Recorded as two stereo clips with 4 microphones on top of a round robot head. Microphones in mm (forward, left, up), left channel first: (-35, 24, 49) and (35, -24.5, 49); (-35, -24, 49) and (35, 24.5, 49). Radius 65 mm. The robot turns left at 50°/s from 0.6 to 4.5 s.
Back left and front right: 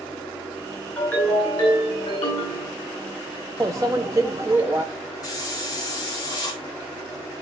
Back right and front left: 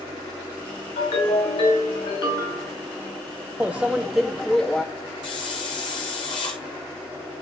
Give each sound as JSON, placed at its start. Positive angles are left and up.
{"t": 1.0, "sound": "a ringtone", "azimuth_deg": -135, "distance_m": 5.5}
{"t": 3.6, "sound": "a microwave", "azimuth_deg": -25, "distance_m": 0.5}
{"t": 5.2, "sound": "a hiss", "azimuth_deg": -175, "distance_m": 1.2}